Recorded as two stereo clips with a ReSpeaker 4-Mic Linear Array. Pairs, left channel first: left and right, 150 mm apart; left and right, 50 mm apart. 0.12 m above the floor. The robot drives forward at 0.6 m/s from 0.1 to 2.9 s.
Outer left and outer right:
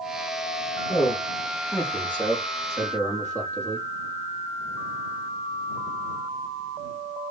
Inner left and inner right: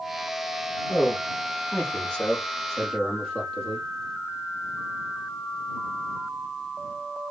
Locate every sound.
0.9 s a man speaking: 15° left (ahead or behind), 2.5 m; by 3.9 s 10° left (ahead or behind), 3.5 m